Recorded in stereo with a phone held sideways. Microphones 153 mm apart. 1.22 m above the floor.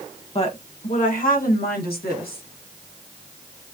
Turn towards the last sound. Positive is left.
turn(degrees=80)